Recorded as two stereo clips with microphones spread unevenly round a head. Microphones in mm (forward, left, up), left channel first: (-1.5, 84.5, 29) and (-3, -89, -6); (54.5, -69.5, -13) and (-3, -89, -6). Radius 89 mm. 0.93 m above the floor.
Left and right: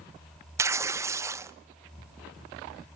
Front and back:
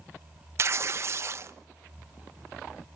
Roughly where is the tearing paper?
Behind right.